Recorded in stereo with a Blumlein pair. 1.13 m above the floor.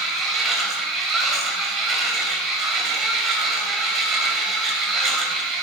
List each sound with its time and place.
0.0 s a machine running: 25° right, 2.5 m